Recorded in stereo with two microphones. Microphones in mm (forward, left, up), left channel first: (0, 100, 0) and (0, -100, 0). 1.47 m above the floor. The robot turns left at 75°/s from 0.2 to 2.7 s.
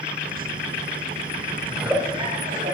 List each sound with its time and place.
1.7 s a giggle: 10° left, 2.0 m; by 2.8 s 70° right, 2.0 m